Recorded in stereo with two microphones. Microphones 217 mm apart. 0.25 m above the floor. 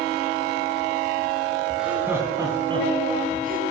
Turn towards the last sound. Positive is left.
turn(degrees=-40)  # may be behind; listen again after turning